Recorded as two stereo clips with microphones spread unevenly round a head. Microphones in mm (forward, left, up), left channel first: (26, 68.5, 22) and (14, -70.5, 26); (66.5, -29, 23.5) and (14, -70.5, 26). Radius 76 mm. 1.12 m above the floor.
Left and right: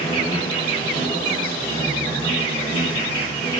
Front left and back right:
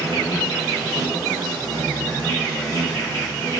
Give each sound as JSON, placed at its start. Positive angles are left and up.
{"t": 0.0, "sound": "an insect", "azimuth_deg": 25, "distance_m": 1.8}